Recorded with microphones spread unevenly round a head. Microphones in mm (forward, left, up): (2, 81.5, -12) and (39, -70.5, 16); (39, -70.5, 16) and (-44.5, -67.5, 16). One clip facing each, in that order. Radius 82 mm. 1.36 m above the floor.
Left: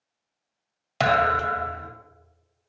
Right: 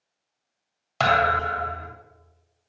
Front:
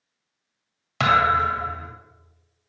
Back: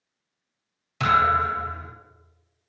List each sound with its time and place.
1.0 s a thud: 35° left, 2.0 m